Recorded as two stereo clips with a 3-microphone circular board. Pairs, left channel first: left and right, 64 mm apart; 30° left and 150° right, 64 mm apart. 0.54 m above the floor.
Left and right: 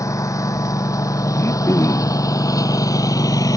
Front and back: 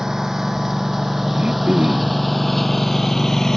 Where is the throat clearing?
135° left.